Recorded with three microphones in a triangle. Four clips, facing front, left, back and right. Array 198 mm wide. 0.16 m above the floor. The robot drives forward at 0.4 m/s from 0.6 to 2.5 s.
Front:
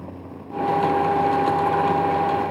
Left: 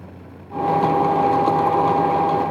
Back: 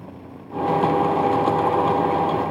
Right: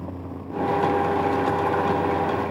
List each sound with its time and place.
Only background noise.